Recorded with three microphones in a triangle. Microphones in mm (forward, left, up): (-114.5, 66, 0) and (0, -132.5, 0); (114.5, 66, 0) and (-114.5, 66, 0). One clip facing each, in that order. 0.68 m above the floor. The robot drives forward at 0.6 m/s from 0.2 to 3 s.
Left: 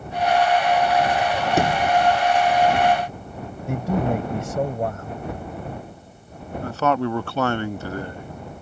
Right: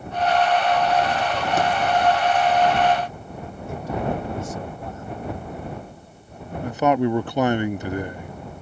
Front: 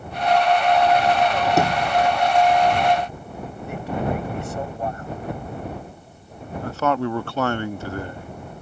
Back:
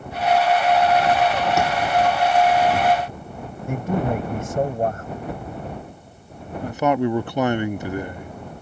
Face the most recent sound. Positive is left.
turn(degrees=-120)